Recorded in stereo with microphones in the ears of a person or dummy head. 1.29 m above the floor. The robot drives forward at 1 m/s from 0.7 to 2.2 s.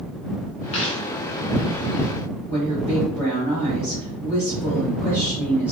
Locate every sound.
0.7 s a dropped coin: 35° left (ahead or behind), 1.3 m; by 1.0 s 30° left (ahead or behind), 1.5 m
2.5 s a woman speaking: 10° left (ahead or behind), 1.9 m